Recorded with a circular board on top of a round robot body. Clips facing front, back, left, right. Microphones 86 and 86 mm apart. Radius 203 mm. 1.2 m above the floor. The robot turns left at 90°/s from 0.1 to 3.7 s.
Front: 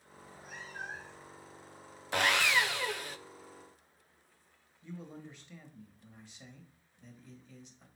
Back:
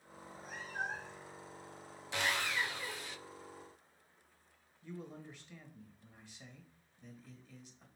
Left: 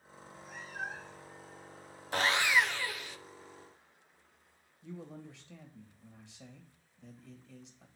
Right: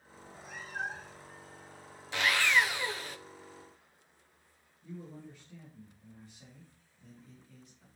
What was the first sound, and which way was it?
A cat meowing, 90° right.